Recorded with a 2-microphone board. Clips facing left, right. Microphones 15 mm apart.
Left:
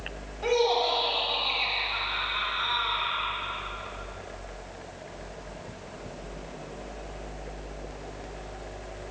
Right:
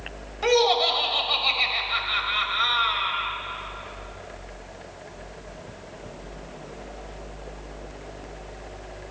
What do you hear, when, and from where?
0.4 s laughter: 40° right (ahead or behind), 0.9 m